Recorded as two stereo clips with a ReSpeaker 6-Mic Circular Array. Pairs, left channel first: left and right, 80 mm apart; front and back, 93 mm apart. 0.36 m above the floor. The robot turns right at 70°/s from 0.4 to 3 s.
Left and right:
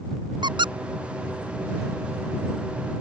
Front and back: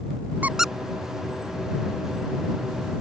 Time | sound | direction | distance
0.4 | a squeak | 110° right | ?